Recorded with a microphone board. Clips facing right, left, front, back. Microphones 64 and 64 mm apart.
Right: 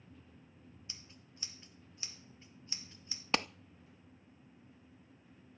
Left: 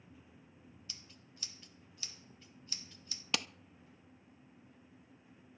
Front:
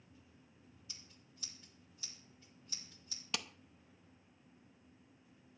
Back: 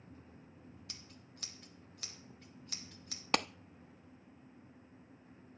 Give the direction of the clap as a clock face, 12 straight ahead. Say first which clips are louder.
Right 5 dB, back 10 dB; 5 o'clock.